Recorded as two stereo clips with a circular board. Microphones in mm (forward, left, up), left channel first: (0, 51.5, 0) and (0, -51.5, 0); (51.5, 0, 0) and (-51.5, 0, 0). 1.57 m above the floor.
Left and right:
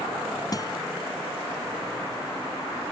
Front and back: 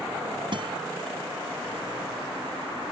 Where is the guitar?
145° left.